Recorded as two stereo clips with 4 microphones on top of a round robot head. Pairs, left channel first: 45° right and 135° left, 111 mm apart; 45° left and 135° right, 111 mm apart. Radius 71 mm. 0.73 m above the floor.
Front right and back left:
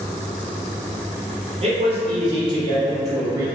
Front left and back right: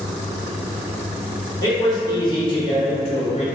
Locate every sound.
1.6 s a man speaking: 100° left, 1.8 m; by 3.5 s 70° left, 1.3 m